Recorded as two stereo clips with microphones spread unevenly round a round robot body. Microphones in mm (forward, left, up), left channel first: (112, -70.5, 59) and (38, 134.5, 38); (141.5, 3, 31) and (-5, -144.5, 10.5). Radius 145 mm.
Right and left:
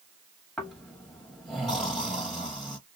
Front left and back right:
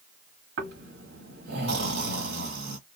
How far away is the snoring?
About 1.2 m.